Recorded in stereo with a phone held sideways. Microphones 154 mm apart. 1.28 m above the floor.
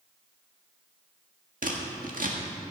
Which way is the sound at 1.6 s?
70° right (ahead or behind).